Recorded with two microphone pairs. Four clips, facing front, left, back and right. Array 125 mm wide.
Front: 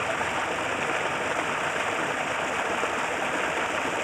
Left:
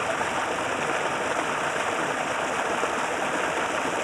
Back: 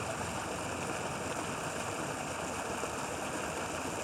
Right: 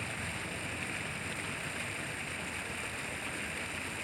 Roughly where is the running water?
Ahead left.